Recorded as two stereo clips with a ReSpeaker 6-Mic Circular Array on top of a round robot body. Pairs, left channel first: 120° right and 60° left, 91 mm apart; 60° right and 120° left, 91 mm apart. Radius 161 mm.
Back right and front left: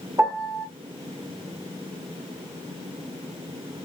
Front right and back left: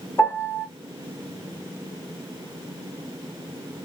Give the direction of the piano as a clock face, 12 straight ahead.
12 o'clock.